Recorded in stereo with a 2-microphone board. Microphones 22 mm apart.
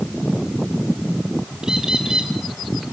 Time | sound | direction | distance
1.6 | a bird | 35° right (ahead or behind) | 4 m